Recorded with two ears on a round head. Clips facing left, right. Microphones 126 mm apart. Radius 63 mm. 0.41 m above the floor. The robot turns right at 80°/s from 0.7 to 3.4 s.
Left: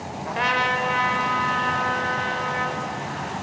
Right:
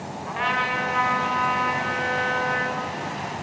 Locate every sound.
0.3 s a trumpet: 120° left, 1.0 m; by 2.8 s 70° right, 1.0 m